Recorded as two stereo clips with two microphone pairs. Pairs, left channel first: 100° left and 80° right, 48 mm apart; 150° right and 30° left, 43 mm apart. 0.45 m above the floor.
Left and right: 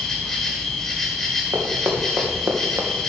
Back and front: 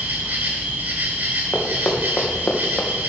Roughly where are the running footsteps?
Right.